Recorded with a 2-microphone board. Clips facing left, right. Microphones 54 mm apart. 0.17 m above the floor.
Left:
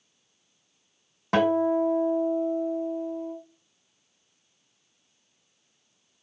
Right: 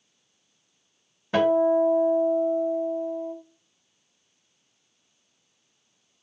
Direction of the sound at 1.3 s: 85° left.